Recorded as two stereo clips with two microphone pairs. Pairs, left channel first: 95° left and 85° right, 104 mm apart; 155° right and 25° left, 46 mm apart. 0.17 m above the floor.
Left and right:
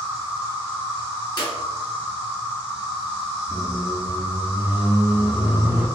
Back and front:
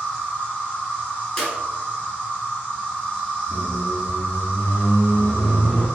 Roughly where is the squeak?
Behind right.